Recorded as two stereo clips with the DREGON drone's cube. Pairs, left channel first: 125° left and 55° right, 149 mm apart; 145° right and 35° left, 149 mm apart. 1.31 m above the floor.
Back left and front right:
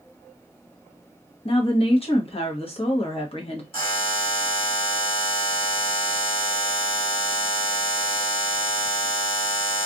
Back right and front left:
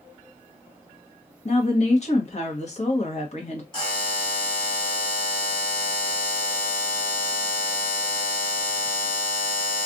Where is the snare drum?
No snare drum in this recording.